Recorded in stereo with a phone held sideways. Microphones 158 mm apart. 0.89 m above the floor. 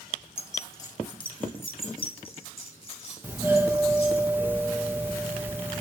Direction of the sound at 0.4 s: 15° left (ahead or behind).